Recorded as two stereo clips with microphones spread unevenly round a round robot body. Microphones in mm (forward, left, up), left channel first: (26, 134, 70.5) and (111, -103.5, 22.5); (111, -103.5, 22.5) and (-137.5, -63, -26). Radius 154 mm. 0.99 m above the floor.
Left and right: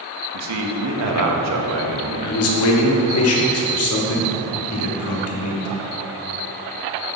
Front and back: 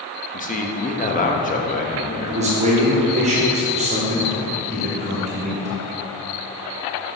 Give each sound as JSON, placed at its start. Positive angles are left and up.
{"t": 0.3, "sound": "a man speaking", "azimuth_deg": -70, "distance_m": 1.0}
{"t": 2.3, "sound": "a man speaking", "azimuth_deg": 125, "distance_m": 1.2}